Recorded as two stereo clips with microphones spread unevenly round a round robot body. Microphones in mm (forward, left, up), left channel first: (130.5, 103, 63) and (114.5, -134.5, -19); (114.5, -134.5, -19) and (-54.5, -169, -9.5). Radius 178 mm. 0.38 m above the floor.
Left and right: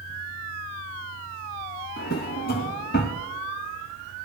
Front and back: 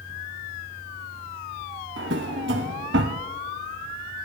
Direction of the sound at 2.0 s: 150° left.